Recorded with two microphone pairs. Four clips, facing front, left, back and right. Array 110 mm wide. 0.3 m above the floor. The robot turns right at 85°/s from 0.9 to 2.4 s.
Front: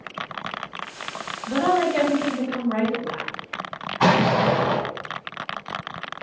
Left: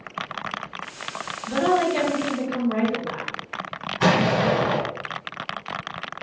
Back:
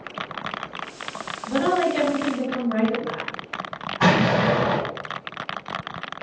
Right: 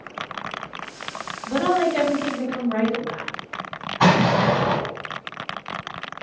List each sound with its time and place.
1.5 s a woman speaking: 45° right, 1.5 m; by 3.3 s 35° left, 1.5 m
4.0 s an explosion: 55° right, 1.7 m